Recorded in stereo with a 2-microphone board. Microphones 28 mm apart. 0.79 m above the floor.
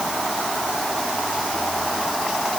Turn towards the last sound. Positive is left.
No sound to turn to.